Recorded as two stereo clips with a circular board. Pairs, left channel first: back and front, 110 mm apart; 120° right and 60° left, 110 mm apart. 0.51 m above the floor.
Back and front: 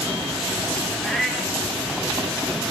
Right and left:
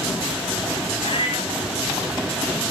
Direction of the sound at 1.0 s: 90° right.